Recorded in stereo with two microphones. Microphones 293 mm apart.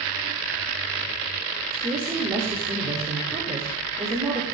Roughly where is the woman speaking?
Centre.